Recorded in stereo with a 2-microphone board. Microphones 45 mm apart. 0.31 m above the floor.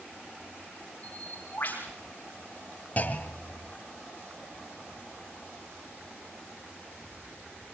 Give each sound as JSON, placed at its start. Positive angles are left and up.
{"t": 1.0, "sound": "a bird", "side_deg": 35, "distance_m": 4.5}
{"t": 3.0, "sound": "a clunk", "side_deg": 35, "distance_m": 1.2}